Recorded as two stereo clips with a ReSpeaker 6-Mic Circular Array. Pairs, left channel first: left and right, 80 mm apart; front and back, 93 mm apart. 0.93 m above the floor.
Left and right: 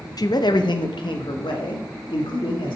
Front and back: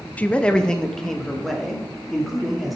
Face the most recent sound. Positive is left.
turn(degrees=90)